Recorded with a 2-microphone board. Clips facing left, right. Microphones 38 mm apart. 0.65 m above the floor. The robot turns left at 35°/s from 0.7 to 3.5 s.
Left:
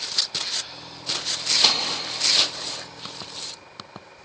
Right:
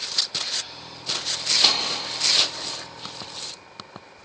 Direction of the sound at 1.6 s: 5° right (ahead or behind).